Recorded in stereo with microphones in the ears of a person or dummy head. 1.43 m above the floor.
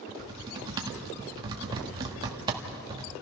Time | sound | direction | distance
0.1 | typing on a keyboard | 25° right (ahead or behind) | 1.6 m